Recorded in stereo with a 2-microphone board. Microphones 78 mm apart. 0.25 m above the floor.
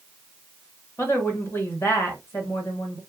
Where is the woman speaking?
30° left (ahead or behind), 1.3 m.